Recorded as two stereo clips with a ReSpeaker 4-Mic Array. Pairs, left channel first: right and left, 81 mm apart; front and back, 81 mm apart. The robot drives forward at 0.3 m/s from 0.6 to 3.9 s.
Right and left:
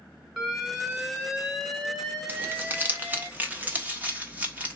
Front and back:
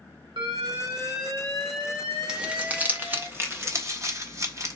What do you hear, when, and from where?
0.4 s an alarm: 170° left, 1.5 m; by 3.3 s 175° left, 2.5 m
2.3 s crumpling: 110° left, 0.8 m; by 4.8 s 150° left, 1.0 m